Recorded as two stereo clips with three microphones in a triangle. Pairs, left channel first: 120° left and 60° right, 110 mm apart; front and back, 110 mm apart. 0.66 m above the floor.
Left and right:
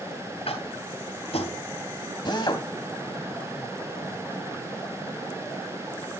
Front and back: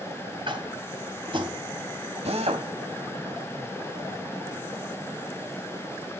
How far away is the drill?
About 2 m.